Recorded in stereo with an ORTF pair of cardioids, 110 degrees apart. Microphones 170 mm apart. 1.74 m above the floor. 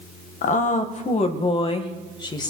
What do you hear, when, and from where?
0.4 s a woman speaking: 50° left, 2 m; by 2.5 s 25° left, 2.5 m